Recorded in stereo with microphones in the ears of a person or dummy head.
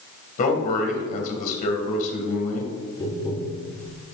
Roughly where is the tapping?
Left.